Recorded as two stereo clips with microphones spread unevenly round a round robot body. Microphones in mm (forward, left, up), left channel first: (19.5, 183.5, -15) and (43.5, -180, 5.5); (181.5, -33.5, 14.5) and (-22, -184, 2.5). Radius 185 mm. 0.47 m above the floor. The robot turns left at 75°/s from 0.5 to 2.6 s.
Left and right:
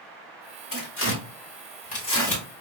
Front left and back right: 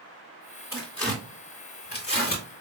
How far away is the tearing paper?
About 1.6 m.